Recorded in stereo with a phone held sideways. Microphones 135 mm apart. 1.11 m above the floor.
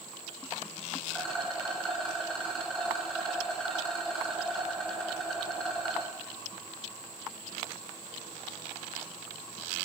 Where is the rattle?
5° left (ahead or behind), 7.5 m.